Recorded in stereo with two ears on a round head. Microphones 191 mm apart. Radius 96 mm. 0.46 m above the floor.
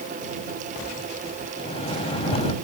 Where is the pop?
No pop in this recording.